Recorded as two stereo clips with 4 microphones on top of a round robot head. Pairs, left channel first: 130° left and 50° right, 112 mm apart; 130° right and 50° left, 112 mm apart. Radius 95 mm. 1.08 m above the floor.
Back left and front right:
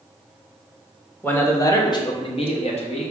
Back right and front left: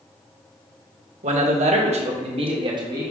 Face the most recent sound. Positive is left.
turn(degrees=110)